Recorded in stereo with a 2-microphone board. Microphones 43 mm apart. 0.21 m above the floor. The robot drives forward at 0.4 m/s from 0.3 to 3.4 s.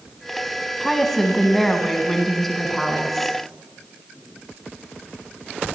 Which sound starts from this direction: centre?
A woman speaking, at 0.8 s.